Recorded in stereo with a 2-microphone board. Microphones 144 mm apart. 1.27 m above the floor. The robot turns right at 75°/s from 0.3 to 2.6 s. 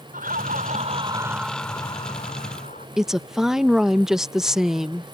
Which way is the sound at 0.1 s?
90° right.